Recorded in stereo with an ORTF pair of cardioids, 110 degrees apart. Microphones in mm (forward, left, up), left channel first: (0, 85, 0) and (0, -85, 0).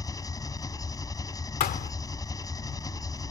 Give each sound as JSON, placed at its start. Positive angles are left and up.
{"t": 0.0, "sound": "an engine running", "azimuth_deg": 20}
{"t": 1.6, "sound": "a thud", "azimuth_deg": 65}